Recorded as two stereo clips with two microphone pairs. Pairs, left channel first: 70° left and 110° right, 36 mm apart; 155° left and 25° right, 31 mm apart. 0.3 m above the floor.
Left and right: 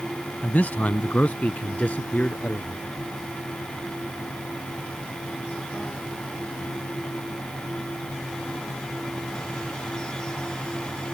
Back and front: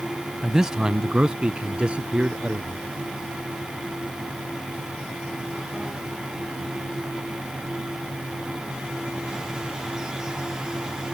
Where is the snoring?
No snoring in this recording.